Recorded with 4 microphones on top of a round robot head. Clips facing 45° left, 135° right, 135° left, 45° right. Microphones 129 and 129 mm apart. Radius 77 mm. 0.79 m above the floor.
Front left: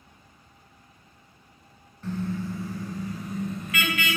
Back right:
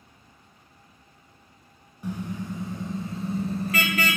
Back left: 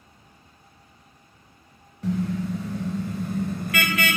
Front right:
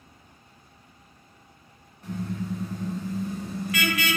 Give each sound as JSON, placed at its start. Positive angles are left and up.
{"t": 2.0, "sound": "a car horn", "azimuth_deg": 150, "distance_m": 2.5}